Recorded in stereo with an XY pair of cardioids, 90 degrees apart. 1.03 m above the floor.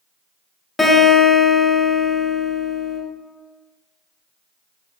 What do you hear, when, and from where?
0.8 s a guitar: 20° left, 0.9 m